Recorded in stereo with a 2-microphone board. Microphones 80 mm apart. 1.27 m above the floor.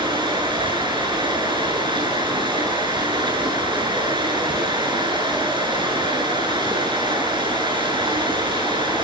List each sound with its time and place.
0.0 s running water: 80° right, 8.5 m